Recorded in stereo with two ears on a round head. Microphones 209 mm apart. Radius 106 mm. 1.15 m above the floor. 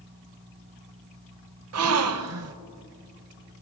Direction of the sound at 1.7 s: 70° right (ahead or behind).